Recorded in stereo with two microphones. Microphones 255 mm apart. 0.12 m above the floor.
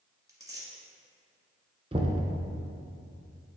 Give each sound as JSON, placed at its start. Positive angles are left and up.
{"t": 0.3, "sound": "tearing paper", "side_deg": -15, "distance_m": 1.5}
{"t": 1.9, "sound": "knocking", "side_deg": -25, "distance_m": 0.9}